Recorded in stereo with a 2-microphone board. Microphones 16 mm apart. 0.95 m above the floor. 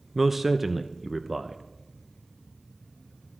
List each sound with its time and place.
0.1 s a man speaking: 5° right (ahead or behind), 0.6 m